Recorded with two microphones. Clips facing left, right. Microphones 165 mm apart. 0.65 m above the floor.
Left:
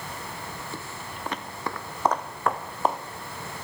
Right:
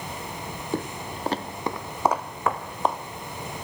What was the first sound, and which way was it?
Footsteps, 60° right (ahead or behind).